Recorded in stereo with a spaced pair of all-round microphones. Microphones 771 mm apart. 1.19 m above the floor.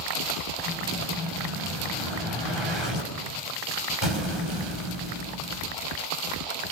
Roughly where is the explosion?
Left.